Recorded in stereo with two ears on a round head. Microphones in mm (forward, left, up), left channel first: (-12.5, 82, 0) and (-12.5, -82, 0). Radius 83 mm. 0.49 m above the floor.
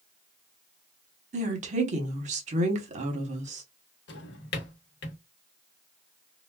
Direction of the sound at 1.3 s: 40° right (ahead or behind).